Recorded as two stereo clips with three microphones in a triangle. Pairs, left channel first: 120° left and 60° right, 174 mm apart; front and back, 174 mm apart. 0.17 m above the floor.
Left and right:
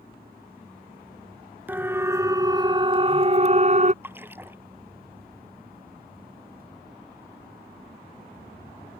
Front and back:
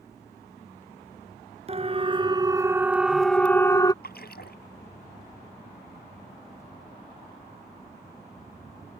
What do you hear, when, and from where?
1.7 s a siren: 135° right; by 3.9 s 55° right
4.0 s a splash: 15° left